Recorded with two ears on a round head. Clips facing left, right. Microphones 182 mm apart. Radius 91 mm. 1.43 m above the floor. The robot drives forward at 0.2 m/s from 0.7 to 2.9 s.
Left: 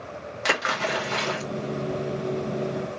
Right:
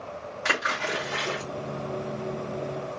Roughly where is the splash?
Left.